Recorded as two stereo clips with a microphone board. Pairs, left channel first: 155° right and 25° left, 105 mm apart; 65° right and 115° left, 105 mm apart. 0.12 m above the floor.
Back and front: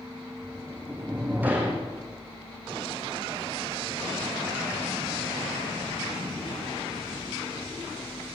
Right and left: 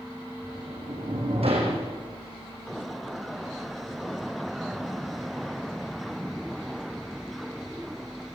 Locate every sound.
0.4 s a sliding door: 95° left, 6 m